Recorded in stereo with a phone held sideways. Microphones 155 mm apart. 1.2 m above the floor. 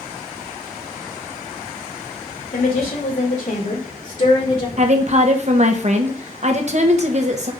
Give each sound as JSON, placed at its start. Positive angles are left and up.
{"t": 2.5, "sound": "a woman speaking", "side_deg": 70, "distance_m": 2.5}
{"t": 4.8, "sound": "a woman speaking", "side_deg": -45, "distance_m": 1.1}